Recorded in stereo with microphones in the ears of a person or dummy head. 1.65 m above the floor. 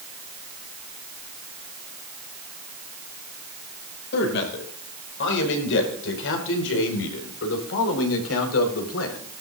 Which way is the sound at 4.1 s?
65° left (ahead or behind).